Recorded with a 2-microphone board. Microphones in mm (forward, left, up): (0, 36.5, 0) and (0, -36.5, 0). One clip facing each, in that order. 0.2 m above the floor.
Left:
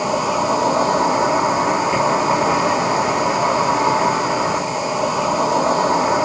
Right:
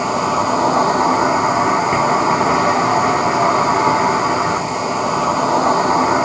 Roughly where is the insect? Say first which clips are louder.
Right 2 dB; right.